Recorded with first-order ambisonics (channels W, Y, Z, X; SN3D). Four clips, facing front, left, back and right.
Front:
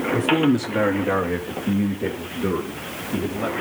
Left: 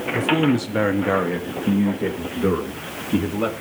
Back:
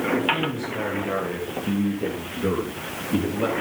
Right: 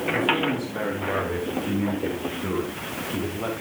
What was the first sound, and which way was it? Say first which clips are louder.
A man speaking: left 6 dB, front 5 dB; 35° left.